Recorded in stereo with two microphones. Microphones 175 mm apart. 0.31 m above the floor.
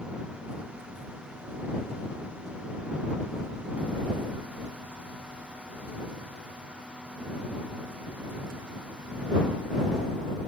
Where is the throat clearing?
No throat clearing in this recording.